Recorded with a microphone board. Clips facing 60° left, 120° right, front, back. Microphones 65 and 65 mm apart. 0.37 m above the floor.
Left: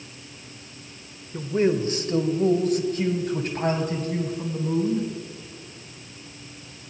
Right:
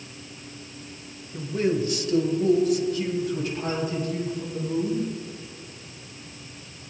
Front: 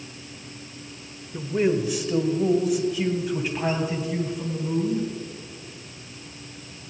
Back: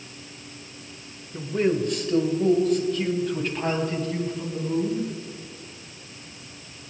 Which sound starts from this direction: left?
A man speaking, at 1.3 s.